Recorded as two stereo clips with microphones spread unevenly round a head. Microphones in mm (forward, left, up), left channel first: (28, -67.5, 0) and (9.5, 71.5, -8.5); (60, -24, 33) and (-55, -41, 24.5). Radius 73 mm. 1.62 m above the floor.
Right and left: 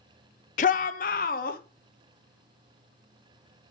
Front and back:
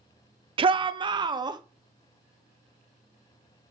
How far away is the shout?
About 0.5 m.